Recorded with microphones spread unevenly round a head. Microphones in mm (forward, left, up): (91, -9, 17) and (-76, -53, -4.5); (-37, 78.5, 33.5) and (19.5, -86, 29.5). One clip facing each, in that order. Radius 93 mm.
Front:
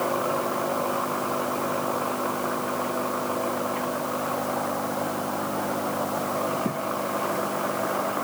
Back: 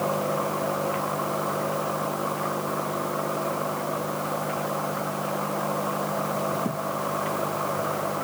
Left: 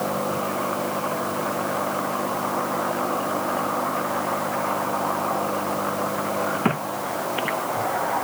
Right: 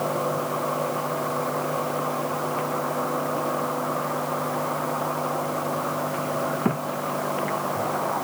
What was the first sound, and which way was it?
Only background noise.